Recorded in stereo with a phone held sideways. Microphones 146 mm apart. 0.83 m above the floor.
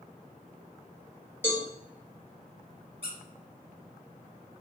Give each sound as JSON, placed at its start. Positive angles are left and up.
{"t": 1.4, "sound": "a cowbell", "side_deg": 15, "distance_m": 1.3}
{"t": 3.0, "sound": "a squeak", "side_deg": -40, "distance_m": 1.5}